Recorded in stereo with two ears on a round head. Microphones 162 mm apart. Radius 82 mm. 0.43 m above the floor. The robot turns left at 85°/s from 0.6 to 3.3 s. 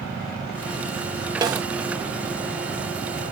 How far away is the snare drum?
About 1.2 m.